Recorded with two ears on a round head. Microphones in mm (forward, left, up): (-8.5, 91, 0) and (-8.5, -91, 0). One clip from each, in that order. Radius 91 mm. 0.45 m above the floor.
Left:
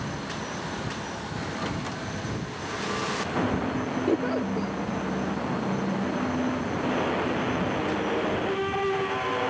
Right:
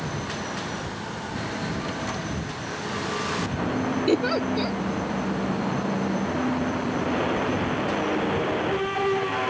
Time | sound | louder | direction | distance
4.1 | a giggle | right 4 dB | 80° right | ?